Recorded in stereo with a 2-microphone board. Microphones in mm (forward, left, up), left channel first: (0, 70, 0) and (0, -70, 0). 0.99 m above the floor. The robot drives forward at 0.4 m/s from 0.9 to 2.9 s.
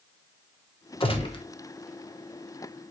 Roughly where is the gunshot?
Left.